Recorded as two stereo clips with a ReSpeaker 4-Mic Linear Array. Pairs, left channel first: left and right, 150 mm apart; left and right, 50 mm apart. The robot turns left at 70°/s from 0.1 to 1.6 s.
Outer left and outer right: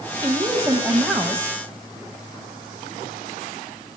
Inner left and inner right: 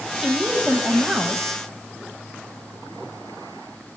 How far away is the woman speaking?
About 1.0 m.